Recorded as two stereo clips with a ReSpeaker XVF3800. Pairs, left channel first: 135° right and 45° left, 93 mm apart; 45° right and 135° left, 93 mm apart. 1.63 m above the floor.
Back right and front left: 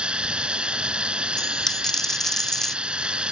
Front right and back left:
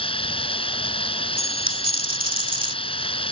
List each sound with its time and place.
0.0 s running water: 35° right
1.4 s a dropped coin: 140° left